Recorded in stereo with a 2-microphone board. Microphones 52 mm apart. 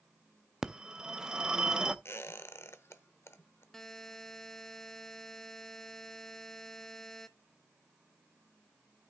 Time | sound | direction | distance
0.6 | a phone ringing | 15° right (ahead or behind) | 0.5 m
2.0 | a squeak | 55° left (ahead or behind) | 0.7 m
3.7 | a buzzer | 10° left (ahead or behind) | 0.7 m